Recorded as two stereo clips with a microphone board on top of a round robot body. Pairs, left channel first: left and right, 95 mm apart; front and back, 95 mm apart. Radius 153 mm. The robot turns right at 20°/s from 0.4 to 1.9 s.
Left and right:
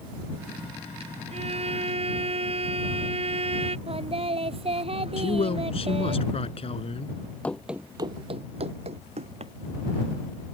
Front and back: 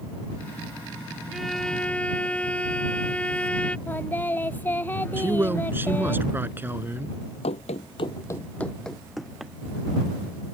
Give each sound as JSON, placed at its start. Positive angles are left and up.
{"t": 1.3, "sound": "a violin", "azimuth_deg": -90}
{"t": 3.9, "sound": "singing", "azimuth_deg": -75}
{"t": 5.2, "sound": "a man speaking", "azimuth_deg": 110}
{"t": 7.4, "sound": "running footsteps", "azimuth_deg": 15}